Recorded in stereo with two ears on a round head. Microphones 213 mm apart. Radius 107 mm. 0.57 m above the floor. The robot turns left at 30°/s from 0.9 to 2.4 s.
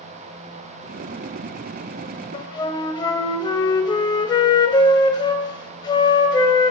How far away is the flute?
About 0.6 m.